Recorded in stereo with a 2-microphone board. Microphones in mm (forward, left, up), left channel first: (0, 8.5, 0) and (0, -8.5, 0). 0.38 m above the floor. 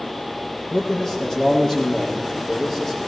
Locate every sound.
0.7 s a man speaking: 30° left (ahead or behind), 7.5 m